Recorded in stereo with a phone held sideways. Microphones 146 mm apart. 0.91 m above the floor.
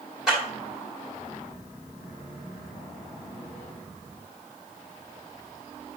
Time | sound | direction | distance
0.3 | a clap | 5° right (ahead or behind) | 4 m